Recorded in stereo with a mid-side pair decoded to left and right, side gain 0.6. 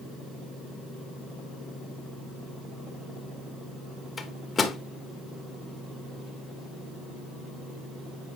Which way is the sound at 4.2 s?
25° left.